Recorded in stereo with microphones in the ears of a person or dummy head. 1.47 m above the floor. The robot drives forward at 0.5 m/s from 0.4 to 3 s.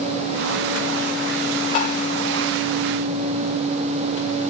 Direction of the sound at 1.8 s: 40° left (ahead or behind).